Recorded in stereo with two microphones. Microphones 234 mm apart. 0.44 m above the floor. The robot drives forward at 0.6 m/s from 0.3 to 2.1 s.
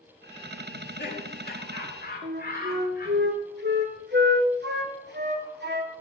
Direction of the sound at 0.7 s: 50° left (ahead or behind).